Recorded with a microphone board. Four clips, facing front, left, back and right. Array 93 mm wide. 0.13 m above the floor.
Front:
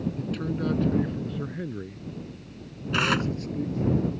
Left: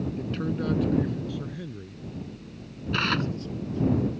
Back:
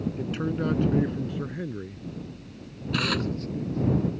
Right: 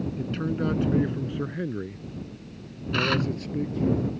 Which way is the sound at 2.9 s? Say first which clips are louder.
Right 2 dB, front 3 dB; 10° left.